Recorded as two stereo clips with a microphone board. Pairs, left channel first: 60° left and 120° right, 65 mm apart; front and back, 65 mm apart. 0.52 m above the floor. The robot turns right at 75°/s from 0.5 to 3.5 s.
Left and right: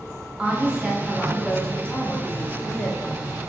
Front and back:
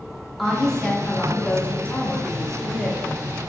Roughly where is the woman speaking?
Right.